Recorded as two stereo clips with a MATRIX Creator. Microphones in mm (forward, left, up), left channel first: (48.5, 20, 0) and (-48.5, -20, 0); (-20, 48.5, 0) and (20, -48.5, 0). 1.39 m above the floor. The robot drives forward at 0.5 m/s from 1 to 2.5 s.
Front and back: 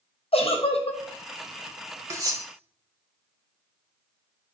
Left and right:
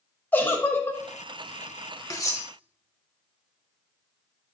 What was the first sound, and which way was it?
A giggle, 40° left.